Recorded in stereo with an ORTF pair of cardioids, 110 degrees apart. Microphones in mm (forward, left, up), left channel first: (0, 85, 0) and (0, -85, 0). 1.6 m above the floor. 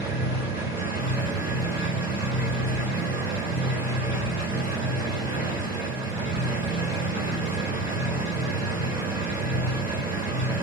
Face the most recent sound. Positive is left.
turn(degrees=-35)